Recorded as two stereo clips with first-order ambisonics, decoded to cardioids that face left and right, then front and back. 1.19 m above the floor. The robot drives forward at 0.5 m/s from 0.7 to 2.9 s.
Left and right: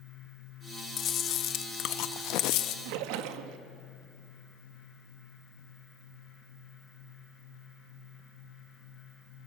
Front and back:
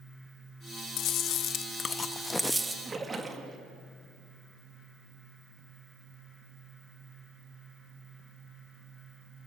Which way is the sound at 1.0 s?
40° left.